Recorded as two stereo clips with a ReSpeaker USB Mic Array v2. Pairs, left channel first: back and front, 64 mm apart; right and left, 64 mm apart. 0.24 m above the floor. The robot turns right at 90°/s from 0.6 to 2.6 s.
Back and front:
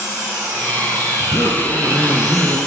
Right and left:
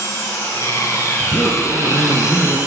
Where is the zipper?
160° right, 4 m; by 2.6 s 30° right, 4 m.